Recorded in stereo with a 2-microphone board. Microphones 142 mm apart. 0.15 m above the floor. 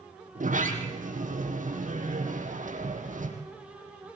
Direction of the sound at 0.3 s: 75° right (ahead or behind).